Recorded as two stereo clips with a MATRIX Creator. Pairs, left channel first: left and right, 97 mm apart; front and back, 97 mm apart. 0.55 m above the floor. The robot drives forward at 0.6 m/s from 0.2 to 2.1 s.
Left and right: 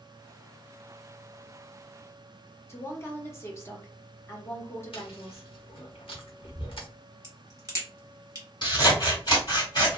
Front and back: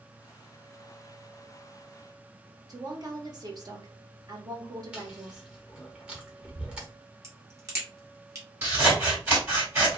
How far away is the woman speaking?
About 0.9 m.